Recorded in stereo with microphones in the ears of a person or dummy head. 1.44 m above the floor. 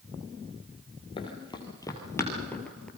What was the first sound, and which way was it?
Running footsteps, 25° left (ahead or behind).